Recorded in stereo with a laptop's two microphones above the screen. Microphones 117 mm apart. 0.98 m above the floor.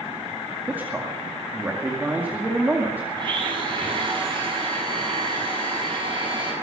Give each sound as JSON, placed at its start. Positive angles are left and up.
{"t": 0.7, "sound": "a man speaking", "side_deg": -15, "distance_m": 2.0}
{"t": 3.2, "sound": "a blender", "side_deg": -45, "distance_m": 8.0}